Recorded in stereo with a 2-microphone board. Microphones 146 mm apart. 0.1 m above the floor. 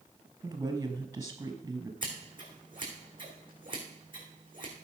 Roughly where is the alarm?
I don't hear an alarm.